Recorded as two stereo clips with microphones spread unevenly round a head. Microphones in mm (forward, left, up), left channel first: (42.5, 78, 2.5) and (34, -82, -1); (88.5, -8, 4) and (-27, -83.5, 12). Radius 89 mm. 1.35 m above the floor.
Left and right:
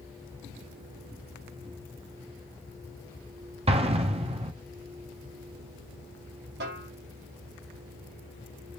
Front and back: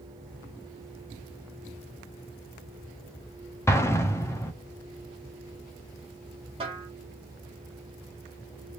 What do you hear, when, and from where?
3.7 s an explosion: 40° right, 0.7 m
6.6 s a snare drum: 105° right, 1.4 m